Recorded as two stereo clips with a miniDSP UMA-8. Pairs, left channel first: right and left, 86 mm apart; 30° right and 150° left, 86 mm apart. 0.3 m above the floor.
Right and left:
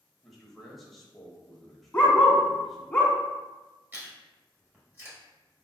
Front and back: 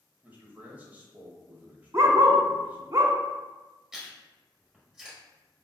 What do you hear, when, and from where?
0.2 s a man speaking: 175° right, 0.9 m
1.9 s a dog barking: 160° right, 1.0 m
3.9 s chewing: 80° left, 1.4 m